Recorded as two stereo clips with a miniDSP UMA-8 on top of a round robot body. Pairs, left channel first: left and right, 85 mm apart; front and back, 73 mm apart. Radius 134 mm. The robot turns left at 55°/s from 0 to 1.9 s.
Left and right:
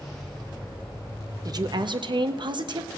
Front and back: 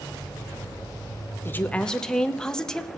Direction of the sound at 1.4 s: 55° right.